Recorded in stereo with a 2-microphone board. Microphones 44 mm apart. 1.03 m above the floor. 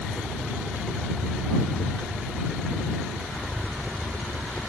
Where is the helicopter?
15° left (ahead or behind); by 4.7 s 25° left (ahead or behind).